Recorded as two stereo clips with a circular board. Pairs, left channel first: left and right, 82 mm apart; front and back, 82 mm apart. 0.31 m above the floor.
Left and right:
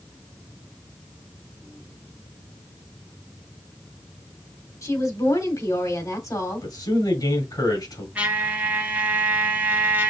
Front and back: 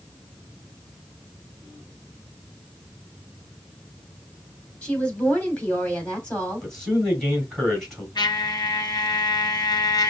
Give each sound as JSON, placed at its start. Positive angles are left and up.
{"t": 4.8, "sound": "a woman speaking", "azimuth_deg": 70, "distance_m": 2.5}
{"t": 6.6, "sound": "a man speaking", "azimuth_deg": 85, "distance_m": 2.5}
{"t": 8.2, "sound": "a trumpet", "azimuth_deg": -20, "distance_m": 1.2}